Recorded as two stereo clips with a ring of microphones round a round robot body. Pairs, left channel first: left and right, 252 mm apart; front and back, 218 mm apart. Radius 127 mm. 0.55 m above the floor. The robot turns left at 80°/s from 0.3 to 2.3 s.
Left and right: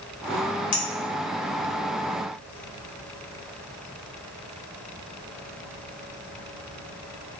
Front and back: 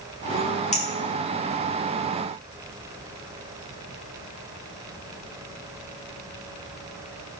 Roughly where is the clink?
Ahead left.